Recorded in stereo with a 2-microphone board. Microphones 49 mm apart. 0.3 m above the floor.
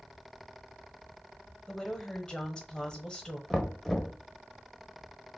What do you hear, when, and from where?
1.7 s a woman speaking: 15° left (ahead or behind), 1.1 m
3.5 s knocking: 5° left (ahead or behind), 0.6 m